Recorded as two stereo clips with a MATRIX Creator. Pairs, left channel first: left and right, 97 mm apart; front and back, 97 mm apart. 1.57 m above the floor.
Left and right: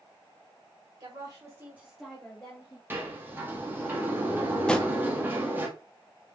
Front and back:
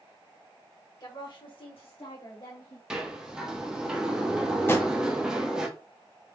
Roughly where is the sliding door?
Right.